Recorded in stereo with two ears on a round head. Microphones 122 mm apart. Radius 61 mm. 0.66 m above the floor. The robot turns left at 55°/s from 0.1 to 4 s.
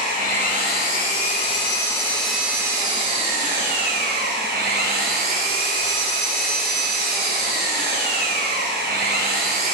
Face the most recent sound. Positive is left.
turn(degrees=-95)